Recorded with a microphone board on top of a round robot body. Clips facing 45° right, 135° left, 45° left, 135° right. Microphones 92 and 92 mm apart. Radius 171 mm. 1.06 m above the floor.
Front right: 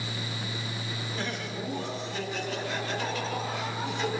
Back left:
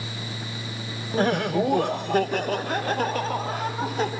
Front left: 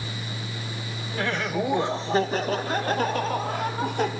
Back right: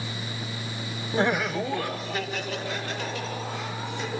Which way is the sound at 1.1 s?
170° left.